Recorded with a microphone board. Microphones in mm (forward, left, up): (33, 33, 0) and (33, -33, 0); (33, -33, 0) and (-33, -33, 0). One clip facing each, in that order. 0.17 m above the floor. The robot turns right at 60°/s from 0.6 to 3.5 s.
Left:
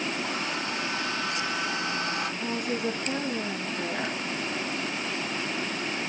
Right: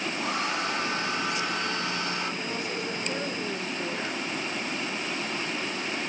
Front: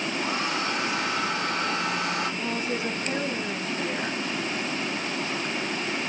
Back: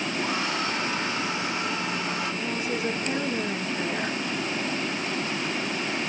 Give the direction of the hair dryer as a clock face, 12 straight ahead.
2 o'clock.